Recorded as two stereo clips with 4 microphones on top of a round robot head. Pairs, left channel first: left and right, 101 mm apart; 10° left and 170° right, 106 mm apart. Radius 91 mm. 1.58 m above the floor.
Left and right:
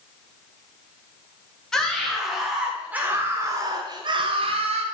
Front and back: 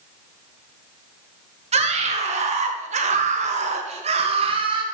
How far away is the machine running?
I don't hear a machine running.